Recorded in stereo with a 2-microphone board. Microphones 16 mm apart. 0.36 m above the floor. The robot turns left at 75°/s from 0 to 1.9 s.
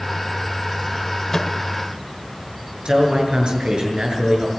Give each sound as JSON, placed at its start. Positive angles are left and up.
{"t": 1.3, "sound": "a microwave", "side_deg": 30, "distance_m": 1.4}
{"t": 2.9, "sound": "a man speaking", "side_deg": -80, "distance_m": 7.0}